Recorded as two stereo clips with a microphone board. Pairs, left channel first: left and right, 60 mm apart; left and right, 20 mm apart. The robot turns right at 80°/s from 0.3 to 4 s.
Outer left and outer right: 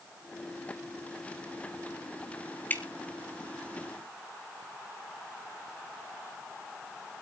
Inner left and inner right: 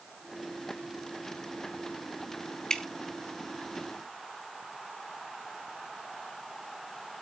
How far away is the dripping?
About 1.4 m.